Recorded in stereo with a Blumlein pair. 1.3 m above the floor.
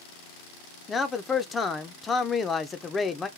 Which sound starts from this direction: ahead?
A man speaking, at 0.9 s.